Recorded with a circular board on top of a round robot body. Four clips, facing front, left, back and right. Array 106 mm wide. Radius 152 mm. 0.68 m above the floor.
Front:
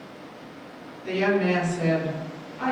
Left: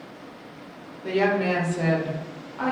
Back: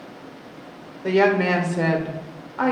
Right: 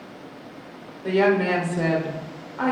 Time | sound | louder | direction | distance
1.0 | a woman speaking | right 3 dB, back 5 dB | 170° right | 3 m